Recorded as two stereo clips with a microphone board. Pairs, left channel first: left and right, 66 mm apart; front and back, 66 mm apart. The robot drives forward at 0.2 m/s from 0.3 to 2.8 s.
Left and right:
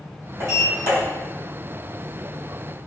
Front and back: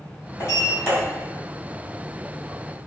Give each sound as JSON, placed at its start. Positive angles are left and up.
{"t": 0.4, "sound": "a sliding door", "azimuth_deg": -55, "distance_m": 2.0}